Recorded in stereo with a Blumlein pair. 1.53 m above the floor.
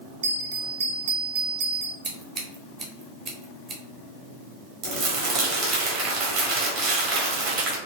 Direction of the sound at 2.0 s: 25° right.